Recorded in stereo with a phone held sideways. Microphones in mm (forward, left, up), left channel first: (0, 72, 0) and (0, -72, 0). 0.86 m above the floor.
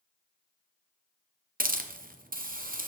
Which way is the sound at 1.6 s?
80° right.